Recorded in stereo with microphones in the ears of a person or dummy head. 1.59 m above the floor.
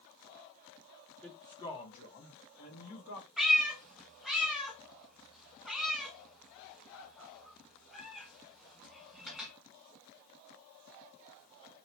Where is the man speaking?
10° left (ahead or behind), 0.8 m; by 3.3 s 70° left (ahead or behind), 1.6 m.